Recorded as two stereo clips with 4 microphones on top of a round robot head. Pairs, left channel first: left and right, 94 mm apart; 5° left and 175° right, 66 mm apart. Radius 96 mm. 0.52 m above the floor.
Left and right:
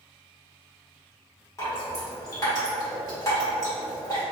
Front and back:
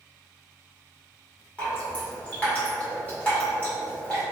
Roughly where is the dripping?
Ahead left.